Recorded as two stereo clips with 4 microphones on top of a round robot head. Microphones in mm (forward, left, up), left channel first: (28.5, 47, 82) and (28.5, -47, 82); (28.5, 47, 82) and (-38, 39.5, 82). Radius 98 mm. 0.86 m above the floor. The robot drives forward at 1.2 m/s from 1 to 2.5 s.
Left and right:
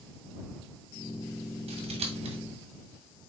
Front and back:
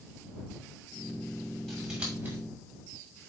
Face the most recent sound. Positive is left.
turn(degrees=-110)